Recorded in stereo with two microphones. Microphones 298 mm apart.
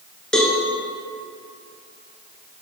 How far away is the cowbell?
About 1.0 m.